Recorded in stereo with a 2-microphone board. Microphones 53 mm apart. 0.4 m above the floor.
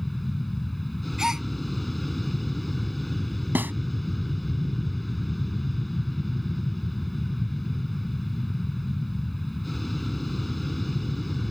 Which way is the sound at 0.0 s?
Centre (ahead or behind).